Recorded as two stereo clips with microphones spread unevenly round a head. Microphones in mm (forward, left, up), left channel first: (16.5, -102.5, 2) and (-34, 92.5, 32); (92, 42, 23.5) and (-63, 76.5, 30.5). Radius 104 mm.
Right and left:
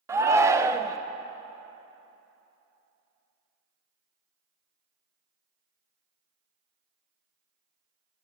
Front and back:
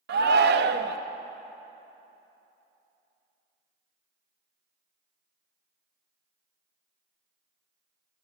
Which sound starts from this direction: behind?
A shout, at 0.1 s.